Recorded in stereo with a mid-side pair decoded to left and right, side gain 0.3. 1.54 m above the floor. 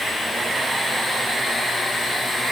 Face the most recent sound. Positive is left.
No sound to turn to.